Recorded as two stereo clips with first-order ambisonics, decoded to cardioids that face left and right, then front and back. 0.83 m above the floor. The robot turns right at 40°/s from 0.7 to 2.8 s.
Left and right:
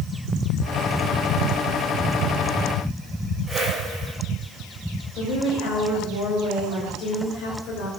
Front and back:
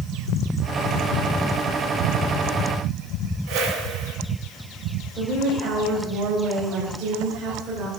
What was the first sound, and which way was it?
A whoosh, 175° right.